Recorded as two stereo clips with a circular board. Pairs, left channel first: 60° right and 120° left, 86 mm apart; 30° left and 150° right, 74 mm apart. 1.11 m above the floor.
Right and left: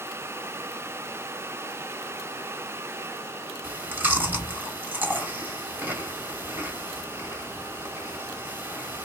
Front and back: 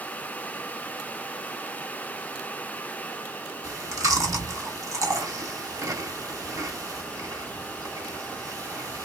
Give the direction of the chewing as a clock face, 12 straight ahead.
6 o'clock.